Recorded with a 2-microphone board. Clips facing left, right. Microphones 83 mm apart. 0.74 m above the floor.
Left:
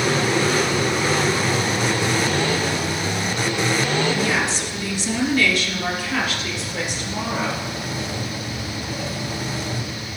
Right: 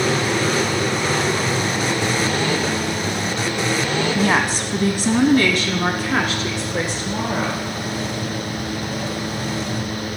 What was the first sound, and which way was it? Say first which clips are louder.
A woman speaking: right 3 dB; 50° right (ahead or behind).